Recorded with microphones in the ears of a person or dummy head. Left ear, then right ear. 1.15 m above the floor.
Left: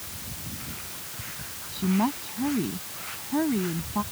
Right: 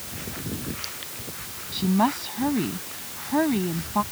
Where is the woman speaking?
25° right (ahead or behind).